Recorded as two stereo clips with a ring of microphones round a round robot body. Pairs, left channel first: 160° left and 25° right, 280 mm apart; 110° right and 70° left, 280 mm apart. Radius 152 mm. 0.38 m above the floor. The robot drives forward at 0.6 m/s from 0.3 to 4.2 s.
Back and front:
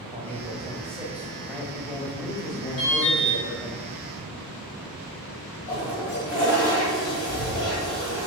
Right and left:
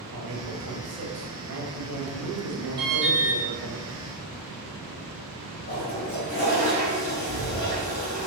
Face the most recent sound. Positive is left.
turn(degrees=-170)